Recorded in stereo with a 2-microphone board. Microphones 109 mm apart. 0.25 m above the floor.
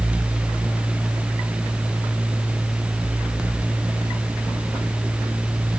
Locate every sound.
Only background noise.